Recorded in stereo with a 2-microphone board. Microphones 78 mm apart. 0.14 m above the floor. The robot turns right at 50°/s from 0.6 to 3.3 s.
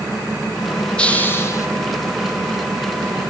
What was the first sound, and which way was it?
A hiss, 15° left.